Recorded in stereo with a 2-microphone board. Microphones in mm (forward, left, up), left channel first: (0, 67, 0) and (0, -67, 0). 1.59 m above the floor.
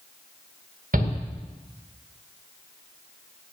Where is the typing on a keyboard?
No typing on a keyboard in this recording.